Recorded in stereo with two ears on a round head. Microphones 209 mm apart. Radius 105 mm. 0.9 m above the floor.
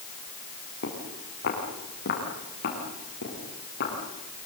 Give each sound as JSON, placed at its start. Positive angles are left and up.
{"t": 0.8, "sound": "footsteps", "side_deg": 45, "distance_m": 7.5}